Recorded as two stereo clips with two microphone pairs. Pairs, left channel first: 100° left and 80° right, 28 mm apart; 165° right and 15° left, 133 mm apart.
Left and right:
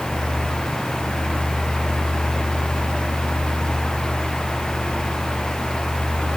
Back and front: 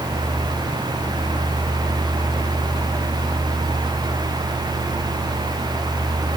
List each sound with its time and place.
Only background noise.